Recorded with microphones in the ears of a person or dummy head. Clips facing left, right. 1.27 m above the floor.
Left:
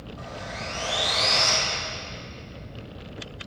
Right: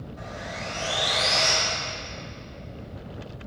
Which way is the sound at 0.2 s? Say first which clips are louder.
Even; 15° right (ahead or behind).